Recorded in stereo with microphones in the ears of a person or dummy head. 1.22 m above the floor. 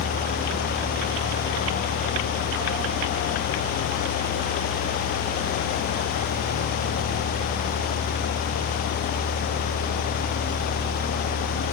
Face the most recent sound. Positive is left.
No sound to turn to.